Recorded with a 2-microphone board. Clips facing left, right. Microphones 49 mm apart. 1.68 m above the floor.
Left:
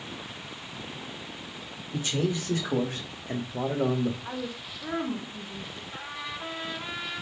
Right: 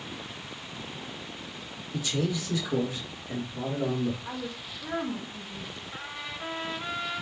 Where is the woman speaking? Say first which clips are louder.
Left 1 dB; 20° left (ahead or behind), 0.7 m.